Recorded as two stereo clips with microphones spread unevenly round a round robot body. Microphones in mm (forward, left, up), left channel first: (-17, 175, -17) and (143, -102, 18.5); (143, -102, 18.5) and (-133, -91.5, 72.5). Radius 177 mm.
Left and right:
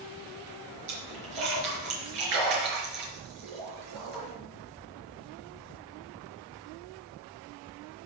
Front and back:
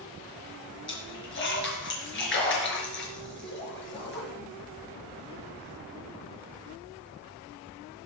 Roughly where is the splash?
Ahead right.